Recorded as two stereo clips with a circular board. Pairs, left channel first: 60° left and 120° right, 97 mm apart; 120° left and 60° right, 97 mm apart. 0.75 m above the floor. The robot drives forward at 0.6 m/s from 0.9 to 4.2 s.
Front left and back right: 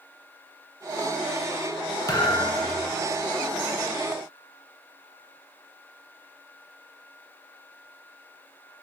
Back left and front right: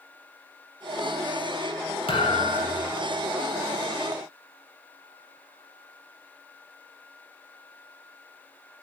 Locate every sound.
2.1 s a thud: 110° left, 1.7 m; by 3.0 s 125° left, 2.0 m